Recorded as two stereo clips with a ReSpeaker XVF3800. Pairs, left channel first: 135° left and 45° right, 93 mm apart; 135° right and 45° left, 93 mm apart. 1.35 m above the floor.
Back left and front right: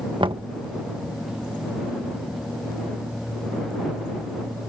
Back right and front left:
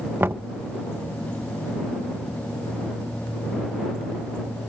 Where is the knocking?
20° right.